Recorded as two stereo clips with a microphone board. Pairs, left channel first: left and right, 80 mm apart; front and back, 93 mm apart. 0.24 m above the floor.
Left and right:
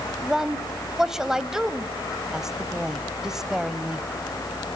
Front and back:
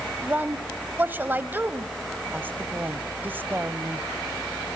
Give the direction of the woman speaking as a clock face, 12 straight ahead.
5 o'clock.